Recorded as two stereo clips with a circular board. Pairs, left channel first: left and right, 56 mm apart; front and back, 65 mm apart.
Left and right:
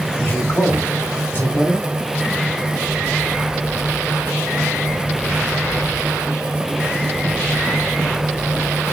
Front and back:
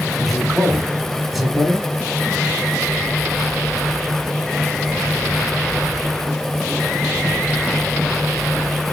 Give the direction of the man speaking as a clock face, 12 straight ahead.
9 o'clock.